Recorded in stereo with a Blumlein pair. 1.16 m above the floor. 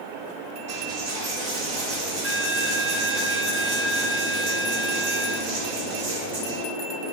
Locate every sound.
0.7 s a dropped coin: 50° right, 1.4 m